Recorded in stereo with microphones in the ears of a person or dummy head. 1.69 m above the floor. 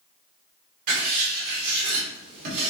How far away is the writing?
About 2.5 m.